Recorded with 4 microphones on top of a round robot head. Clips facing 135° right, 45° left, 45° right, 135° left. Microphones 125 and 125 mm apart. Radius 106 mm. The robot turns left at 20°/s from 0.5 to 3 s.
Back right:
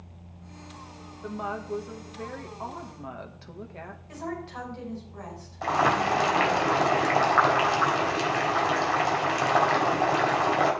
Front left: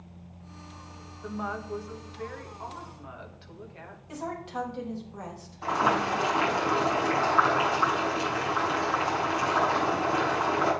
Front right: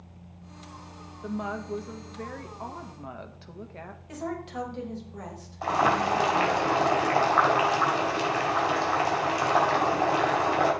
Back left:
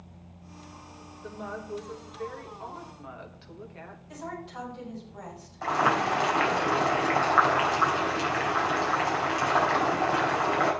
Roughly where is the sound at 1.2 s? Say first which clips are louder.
Back right 1 dB, front right 5 dB; ahead right.